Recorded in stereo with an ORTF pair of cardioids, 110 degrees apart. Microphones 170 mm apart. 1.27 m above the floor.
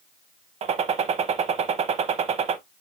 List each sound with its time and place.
0.6 s a gunshot: 45° right, 1.0 m